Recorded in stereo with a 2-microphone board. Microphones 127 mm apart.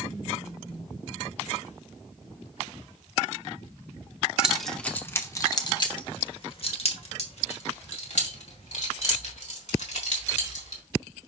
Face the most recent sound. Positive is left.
turn(degrees=70)  # may be behind; listen again after turning